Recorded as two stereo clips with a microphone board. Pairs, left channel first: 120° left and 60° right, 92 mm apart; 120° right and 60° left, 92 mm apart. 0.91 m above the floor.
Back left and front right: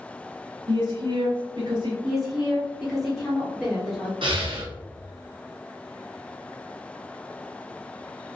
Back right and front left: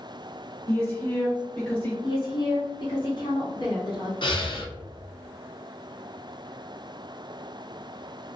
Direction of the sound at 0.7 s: 50° right.